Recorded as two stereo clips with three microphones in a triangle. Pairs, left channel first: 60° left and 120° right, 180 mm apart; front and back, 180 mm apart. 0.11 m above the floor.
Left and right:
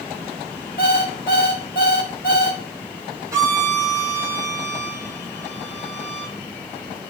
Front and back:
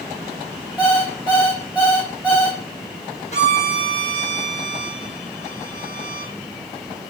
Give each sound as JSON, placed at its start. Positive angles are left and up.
{"t": 0.8, "sound": "an alarm clock", "azimuth_deg": 100, "distance_m": 3.0}
{"t": 3.3, "sound": "a violin", "azimuth_deg": -45, "distance_m": 1.4}